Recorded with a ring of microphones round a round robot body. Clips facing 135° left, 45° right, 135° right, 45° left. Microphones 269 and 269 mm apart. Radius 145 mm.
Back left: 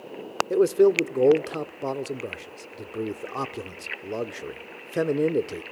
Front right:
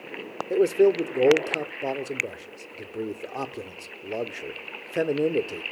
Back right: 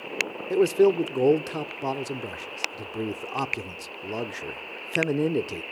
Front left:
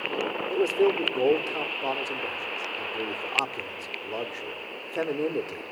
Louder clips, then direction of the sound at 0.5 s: Back left 1 dB, back right 4 dB; 145° right.